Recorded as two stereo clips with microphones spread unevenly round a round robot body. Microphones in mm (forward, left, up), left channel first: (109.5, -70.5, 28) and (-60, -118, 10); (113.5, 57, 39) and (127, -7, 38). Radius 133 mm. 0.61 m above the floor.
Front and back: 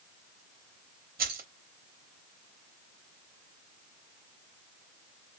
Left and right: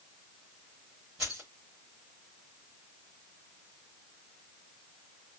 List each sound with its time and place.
1.2 s keys jangling: 155° right, 1.1 m